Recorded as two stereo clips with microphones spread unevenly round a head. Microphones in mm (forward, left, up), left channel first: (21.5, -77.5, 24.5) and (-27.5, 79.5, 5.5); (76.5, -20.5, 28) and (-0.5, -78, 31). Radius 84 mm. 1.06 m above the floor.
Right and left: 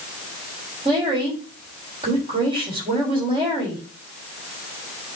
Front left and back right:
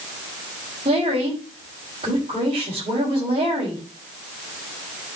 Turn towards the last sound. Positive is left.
turn(degrees=165)